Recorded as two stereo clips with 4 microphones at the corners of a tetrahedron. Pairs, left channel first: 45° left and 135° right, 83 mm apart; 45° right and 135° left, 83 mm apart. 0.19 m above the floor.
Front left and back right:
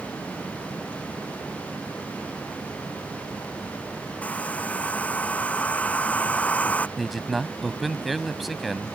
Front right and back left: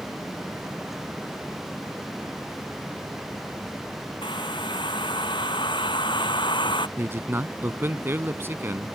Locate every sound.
4.2 s a hair dryer: 30° right
7.0 s a man speaking: 135° left